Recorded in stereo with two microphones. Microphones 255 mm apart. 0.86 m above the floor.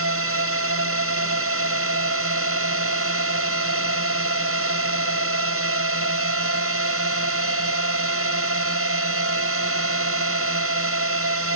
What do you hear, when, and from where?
0.0 s a drone: 60° right (ahead or behind)